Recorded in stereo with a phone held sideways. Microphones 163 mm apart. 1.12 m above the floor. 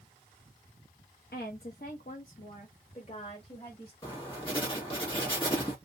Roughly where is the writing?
Left.